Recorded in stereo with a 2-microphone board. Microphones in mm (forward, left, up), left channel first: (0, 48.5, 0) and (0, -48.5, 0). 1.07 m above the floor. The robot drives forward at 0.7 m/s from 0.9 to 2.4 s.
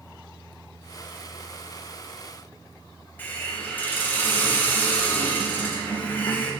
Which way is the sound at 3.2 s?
20° left (ahead or behind).